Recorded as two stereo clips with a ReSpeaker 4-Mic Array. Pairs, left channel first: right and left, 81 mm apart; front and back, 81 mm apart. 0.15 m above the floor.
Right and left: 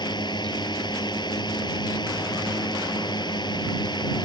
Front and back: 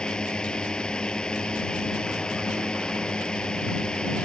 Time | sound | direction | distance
0.0 | a drone | 80° right | ?